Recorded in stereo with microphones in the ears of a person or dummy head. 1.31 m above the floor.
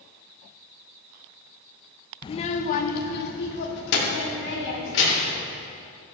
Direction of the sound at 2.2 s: 25° left (ahead or behind).